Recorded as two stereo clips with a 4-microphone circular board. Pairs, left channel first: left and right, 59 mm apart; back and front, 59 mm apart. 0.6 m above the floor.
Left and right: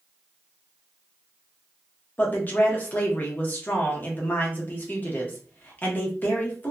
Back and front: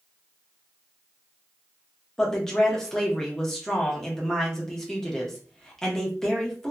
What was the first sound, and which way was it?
A woman speaking, 105° left.